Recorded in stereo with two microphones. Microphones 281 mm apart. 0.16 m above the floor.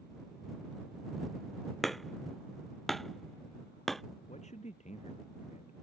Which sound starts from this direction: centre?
Hammering, at 1.8 s.